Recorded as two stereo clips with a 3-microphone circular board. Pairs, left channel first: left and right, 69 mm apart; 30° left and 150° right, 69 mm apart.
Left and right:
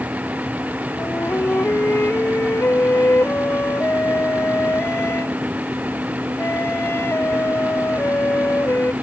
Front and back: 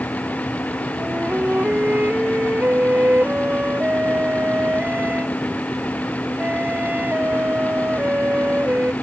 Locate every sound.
1.0 s a flute: 145° left